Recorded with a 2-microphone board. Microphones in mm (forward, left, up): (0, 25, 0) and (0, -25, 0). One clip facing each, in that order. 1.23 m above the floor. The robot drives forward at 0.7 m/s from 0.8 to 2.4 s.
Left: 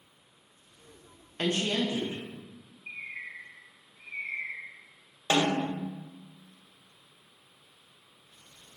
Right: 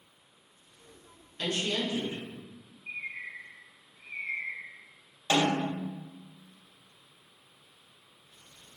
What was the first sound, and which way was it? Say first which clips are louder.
A woman speaking: left 3 dB; 45° left (ahead or behind).